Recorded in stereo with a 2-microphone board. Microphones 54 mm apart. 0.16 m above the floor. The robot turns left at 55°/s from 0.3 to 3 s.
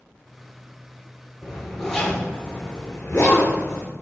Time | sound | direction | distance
1.4 | a zipper | 15° right (ahead or behind) | 1.2 m